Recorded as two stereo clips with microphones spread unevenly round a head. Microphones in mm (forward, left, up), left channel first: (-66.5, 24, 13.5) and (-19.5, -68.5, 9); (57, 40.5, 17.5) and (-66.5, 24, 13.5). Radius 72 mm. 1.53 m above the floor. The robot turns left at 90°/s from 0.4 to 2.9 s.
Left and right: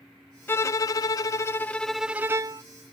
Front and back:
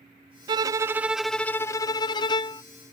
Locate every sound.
0.5 s a violin: 165° left; by 2.6 s 30° right